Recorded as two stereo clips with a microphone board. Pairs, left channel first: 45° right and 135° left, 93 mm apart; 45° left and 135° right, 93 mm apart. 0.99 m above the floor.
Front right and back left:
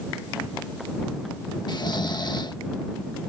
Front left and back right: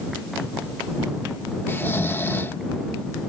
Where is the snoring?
15° right.